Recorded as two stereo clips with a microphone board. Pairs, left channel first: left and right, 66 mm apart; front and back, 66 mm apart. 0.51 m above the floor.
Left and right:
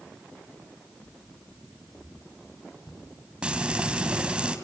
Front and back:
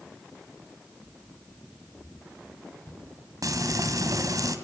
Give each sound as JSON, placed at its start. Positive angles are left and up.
{"t": 0.6, "sound": "footsteps", "azimuth_deg": 55, "distance_m": 5.0}
{"t": 3.4, "sound": "frying", "azimuth_deg": -165, "distance_m": 3.0}